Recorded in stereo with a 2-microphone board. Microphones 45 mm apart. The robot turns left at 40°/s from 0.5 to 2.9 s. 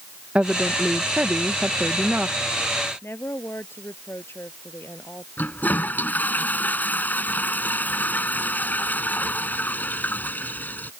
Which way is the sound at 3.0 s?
65° left (ahead or behind).